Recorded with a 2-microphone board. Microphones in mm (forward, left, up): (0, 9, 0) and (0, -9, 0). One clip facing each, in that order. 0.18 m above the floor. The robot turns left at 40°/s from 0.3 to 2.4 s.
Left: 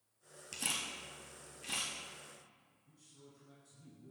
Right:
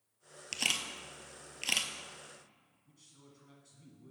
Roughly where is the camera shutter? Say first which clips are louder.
Right 6 dB; right.